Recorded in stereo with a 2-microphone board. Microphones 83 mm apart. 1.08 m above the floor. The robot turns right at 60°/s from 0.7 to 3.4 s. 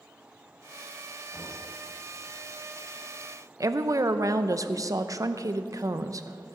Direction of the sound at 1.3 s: 5° left (ahead or behind).